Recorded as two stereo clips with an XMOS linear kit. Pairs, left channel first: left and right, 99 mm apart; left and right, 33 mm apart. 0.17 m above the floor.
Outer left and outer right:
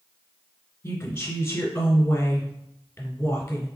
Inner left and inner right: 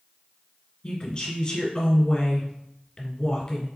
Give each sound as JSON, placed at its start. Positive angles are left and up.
{"t": 0.8, "sound": "a woman speaking", "side_deg": 20, "distance_m": 1.5}